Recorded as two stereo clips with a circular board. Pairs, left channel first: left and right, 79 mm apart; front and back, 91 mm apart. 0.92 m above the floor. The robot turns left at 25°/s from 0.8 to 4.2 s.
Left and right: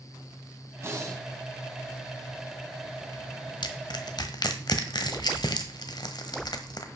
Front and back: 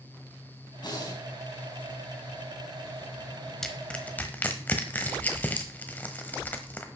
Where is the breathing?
35° right, 2.5 m; by 1.2 s 45° right, 2.5 m.